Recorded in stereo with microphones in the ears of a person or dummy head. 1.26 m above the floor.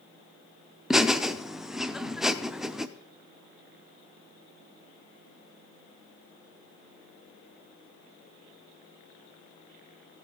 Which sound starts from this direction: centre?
Laughter, at 0.9 s.